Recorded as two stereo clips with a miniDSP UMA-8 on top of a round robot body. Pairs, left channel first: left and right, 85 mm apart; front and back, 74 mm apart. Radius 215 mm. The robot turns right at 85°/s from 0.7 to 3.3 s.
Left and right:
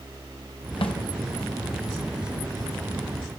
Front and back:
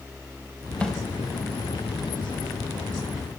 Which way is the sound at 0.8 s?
75° left.